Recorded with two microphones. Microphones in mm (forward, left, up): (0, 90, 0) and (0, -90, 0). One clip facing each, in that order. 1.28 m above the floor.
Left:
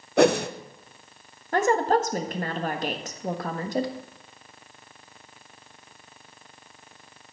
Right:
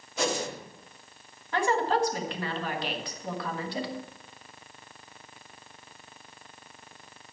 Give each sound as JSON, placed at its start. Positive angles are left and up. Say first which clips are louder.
{"t": 0.2, "sound": "a whoosh", "louder": "left 11 dB", "side_deg": 60, "distance_m": 0.7}
{"t": 1.5, "sound": "a woman speaking", "louder": "left 4 dB", "side_deg": 45, "distance_m": 1.4}